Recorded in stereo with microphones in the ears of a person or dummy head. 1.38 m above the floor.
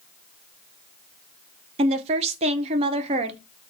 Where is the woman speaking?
35° right (ahead or behind), 0.7 m.